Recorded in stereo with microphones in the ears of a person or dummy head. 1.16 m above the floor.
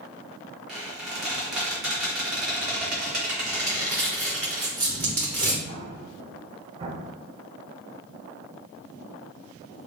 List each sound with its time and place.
0.7 s a squeak: 5° right (ahead or behind), 1.2 m
3.7 s crumpling: 5° left (ahead or behind), 1.0 m
5.7 s an explosion: 30° right (ahead or behind), 0.7 m